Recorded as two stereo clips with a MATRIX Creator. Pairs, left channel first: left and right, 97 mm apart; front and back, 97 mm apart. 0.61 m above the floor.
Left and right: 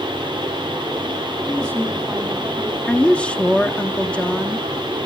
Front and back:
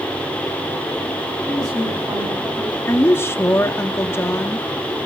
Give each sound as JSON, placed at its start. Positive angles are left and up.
{"t": 1.5, "sound": "a woman speaking", "azimuth_deg": -155, "distance_m": 3.0}
{"t": 2.9, "sound": "a woman speaking", "azimuth_deg": 25, "distance_m": 0.9}